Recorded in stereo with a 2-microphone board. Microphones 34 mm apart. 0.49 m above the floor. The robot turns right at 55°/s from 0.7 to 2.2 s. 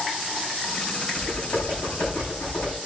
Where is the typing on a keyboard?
50° left, 9.5 m; by 2.8 s 105° left, 9.5 m.